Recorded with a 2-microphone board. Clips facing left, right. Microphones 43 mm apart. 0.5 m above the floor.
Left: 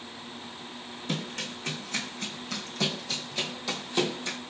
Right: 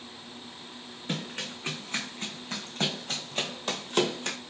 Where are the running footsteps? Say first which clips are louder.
Left 1 dB; 20° right (ahead or behind), 2.5 m; by 4.4 s 60° right (ahead or behind), 1.0 m.